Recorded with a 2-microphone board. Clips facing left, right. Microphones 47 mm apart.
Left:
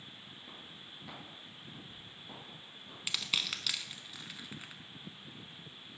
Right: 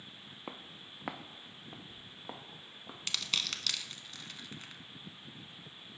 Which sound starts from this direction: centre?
Crushing, at 3.1 s.